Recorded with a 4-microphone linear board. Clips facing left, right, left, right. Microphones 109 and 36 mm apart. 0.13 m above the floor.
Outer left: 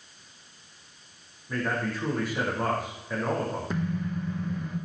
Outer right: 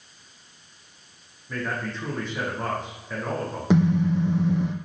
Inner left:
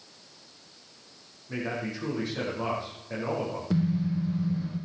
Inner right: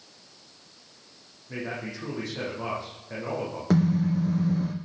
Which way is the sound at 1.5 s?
10° left (ahead or behind).